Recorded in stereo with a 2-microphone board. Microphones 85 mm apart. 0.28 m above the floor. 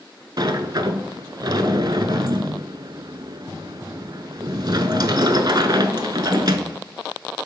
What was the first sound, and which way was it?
A sliding door, 60° right (ahead or behind).